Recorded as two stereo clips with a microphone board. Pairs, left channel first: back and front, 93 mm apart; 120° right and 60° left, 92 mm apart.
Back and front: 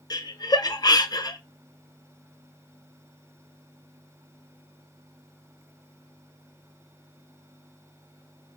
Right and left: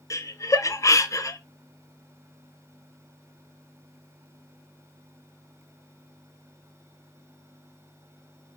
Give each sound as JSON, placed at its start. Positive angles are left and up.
{"t": 0.1, "sound": "laughter", "azimuth_deg": -160, "distance_m": 0.6}